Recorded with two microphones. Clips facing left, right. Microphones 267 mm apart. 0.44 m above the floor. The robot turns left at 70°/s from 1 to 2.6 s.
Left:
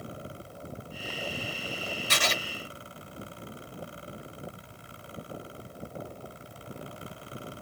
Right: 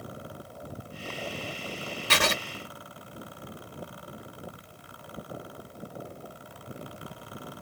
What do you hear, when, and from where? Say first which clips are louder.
2.1 s writing: right 5 dB; 70° right (ahead or behind), 0.8 m; by 2.4 s 55° right (ahead or behind), 0.8 m